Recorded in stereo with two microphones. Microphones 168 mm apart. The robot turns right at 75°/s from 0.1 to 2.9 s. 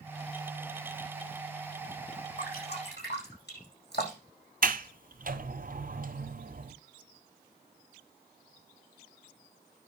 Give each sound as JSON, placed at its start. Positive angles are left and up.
{"t": 2.4, "sound": "dripping", "side_deg": 50, "distance_m": 9.0}
{"t": 4.6, "sound": "a sliding door", "side_deg": -60, "distance_m": 1.0}